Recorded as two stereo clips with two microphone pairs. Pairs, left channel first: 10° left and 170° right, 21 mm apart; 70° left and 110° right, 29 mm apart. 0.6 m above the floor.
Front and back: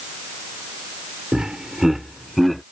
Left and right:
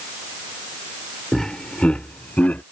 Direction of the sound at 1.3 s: 140° left.